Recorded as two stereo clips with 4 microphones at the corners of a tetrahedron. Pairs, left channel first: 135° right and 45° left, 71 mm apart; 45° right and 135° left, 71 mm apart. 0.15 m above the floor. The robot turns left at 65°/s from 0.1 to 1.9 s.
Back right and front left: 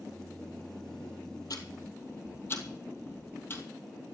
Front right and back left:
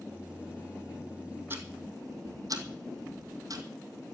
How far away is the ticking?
About 2.5 m.